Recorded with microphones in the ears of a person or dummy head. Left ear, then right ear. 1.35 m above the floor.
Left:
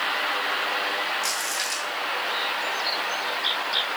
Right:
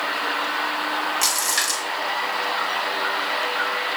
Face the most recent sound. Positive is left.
turn(degrees=-85)